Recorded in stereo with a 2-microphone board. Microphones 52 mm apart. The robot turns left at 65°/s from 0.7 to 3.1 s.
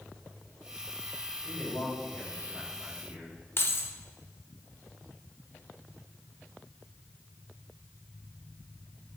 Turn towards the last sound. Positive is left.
turn(degrees=50)  # may be behind; listen again after turning